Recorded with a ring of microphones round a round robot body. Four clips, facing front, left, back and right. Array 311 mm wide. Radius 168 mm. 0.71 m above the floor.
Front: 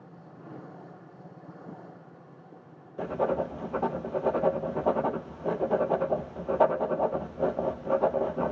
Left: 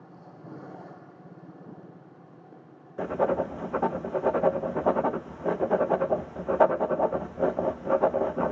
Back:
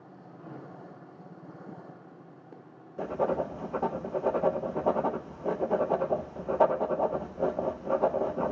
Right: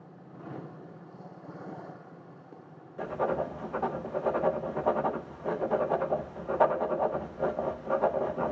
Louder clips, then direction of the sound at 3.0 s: Left 4 dB, front 1 dB; 85° left.